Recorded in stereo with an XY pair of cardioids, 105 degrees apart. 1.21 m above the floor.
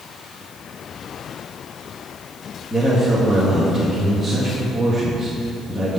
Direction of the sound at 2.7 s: 10° left.